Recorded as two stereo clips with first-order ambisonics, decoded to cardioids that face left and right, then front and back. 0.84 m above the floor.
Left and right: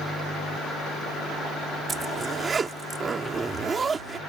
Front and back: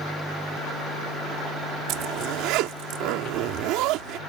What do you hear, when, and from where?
1.9 s a zipper: 160° right